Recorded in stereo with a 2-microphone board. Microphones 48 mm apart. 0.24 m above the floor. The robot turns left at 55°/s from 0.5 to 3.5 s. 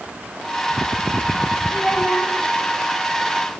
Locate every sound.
1.7 s a child speaking: straight ahead, 3 m; by 2.3 s 30° right, 3 m